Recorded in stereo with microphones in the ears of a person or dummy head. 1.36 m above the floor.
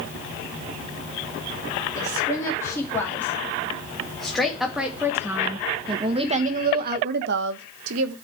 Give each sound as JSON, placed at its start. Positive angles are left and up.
{"t": 1.9, "sound": "a woman speaking", "side_deg": 15, "distance_m": 3.5}